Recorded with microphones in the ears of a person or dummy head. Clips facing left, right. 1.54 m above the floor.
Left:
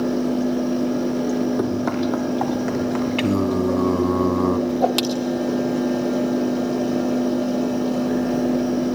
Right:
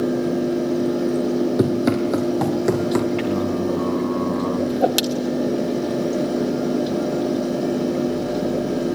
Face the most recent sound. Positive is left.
turn(degrees=-15)  # may be behind; listen again after turning